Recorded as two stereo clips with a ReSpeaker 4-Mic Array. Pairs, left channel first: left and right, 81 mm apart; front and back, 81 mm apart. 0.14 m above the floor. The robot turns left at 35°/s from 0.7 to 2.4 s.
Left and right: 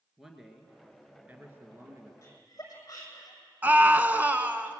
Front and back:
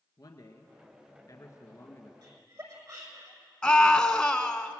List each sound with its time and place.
0.2 s a man speaking: 5° right, 2 m; by 2.1 s 55° right, 2 m
2.2 s laughter: 145° left, 6 m; by 3.4 s 140° left, 6 m
3.6 s a scream: 65° right, 1.3 m